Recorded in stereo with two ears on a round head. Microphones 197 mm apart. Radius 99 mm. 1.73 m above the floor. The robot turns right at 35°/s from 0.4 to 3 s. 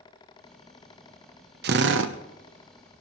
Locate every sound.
1.6 s a drill: 50° right (ahead or behind), 1.0 m; by 2.1 s 65° right (ahead or behind), 1.0 m